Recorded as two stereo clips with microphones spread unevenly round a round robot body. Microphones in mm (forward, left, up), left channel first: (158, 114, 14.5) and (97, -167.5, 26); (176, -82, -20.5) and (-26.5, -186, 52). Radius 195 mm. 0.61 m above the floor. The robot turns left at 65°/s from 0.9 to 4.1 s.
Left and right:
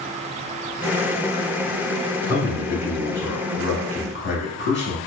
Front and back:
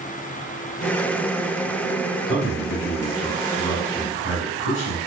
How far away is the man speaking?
About 2.0 m.